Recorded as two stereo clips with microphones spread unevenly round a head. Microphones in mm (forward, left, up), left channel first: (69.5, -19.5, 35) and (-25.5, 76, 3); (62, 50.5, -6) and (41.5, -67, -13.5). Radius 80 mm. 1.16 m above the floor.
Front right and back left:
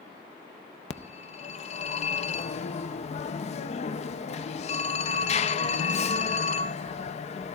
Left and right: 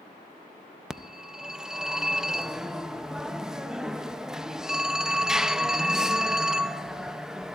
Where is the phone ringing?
10° right, 0.6 m.